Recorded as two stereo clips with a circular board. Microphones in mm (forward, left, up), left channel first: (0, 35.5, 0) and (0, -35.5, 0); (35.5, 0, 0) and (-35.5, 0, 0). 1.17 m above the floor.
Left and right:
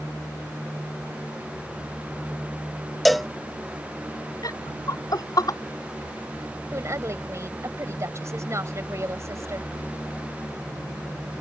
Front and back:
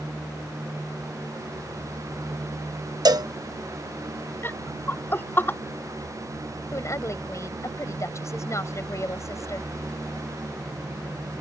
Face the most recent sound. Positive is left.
turn(degrees=-45)